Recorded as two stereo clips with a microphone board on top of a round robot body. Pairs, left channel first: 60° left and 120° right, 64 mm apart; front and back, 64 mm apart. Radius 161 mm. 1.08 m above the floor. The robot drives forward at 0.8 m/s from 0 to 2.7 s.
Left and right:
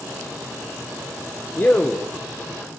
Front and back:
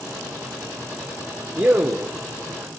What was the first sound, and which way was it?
A man speaking, 115° left.